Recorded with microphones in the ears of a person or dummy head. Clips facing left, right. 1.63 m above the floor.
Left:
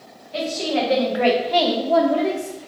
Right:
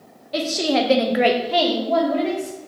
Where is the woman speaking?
70° right (ahead or behind), 0.9 m; by 2.6 s 20° left (ahead or behind), 1.7 m.